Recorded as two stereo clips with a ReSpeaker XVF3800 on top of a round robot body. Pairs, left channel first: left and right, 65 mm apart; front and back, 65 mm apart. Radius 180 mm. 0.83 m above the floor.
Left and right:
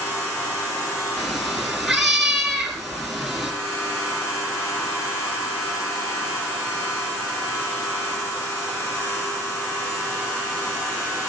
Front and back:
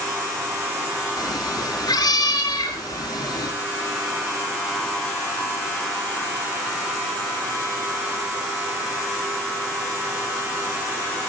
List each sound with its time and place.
1.2 s a cat meowing: straight ahead, 5 m